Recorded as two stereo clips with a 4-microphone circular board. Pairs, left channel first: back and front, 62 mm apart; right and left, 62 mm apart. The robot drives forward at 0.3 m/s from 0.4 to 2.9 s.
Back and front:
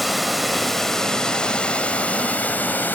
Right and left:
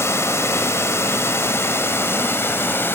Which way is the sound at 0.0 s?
90° right.